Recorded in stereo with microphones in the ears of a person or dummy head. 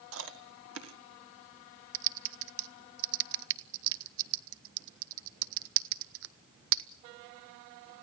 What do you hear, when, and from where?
0.1 s chewing: 70° right (ahead or behind), 1.6 m
1.9 s typing on a keyboard: 75° right (ahead or behind), 0.7 m